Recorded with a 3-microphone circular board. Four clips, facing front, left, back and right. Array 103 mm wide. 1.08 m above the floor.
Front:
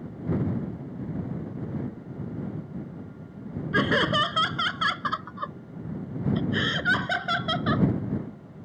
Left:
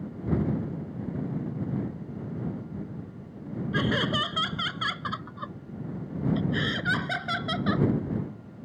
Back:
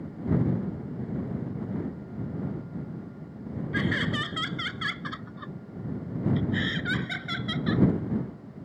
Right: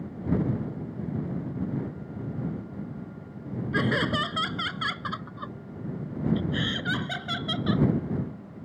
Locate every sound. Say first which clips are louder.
3.7 s laughter: right 1 dB, front 6 dB; 10° right; by 7.9 s 10° left